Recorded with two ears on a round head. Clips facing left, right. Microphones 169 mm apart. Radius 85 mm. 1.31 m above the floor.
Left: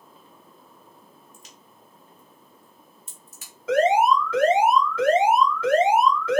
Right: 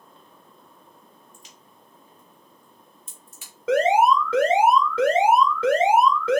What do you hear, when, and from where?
1.3 s a crack: 35° left (ahead or behind), 1.1 m
3.7 s an alarm: 60° right (ahead or behind), 1.6 m